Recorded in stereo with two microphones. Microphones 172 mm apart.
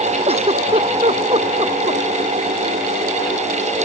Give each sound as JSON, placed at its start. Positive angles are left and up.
{"t": 0.3, "sound": "a giggle", "side_deg": -35}